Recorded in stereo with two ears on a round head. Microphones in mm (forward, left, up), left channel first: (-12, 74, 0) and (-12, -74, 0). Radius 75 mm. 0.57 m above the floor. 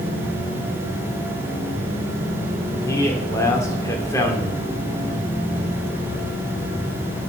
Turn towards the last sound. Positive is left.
turn(degrees=20)  # may be behind; listen again after turning